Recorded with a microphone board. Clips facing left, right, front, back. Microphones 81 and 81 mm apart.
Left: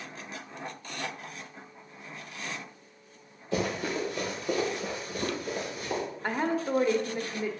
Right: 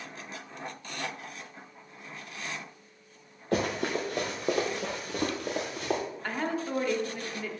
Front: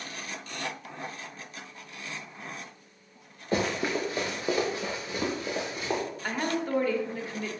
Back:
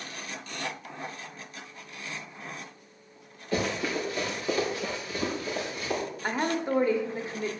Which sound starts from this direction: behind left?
A woman speaking, at 6.2 s.